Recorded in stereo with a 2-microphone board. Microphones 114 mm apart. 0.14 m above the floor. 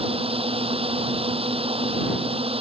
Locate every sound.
0.0 s a drone: 55° right (ahead or behind)